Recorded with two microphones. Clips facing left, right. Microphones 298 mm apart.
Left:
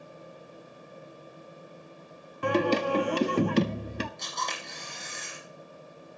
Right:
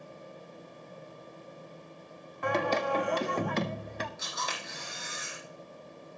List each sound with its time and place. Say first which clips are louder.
2.4 s singing: left 5 dB; 40° left (ahead or behind), 0.8 m
4.2 s a camera shutter: left 1 dB; 5° right (ahead or behind), 6 m